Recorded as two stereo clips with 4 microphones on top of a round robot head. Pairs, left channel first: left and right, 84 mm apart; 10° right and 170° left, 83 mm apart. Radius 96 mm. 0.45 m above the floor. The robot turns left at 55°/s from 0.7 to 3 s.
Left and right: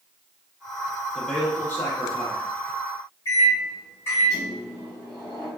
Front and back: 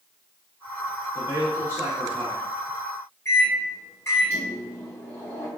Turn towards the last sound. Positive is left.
turn(degrees=40)